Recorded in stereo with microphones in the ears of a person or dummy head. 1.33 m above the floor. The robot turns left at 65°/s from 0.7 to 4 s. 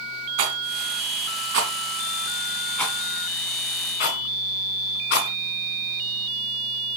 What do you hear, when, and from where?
0.4 s a rattle: 35° right (ahead or behind), 1.8 m; by 5.3 s 50° left (ahead or behind), 1.8 m